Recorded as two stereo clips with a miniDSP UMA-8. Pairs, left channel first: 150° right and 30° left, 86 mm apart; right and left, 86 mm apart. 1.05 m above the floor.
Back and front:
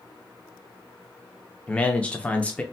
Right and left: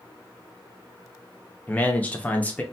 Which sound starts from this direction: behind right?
A man speaking, at 1.7 s.